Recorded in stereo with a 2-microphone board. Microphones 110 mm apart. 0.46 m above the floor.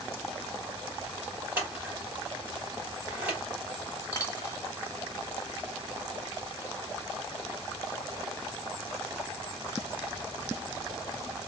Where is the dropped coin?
30° left (ahead or behind), 1.1 m.